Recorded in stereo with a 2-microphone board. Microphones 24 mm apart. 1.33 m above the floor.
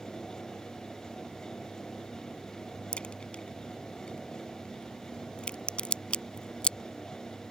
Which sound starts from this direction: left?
A crack, at 2.9 s.